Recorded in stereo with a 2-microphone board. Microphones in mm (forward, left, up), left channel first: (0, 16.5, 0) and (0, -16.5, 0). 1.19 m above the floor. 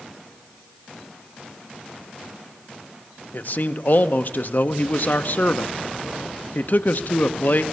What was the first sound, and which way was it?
A man speaking, 60° left (ahead or behind).